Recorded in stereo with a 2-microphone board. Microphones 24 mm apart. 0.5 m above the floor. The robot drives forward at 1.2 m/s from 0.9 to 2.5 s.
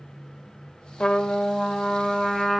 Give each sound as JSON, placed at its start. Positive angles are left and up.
{"t": 1.0, "sound": "a trumpet", "side_deg": 45, "distance_m": 0.5}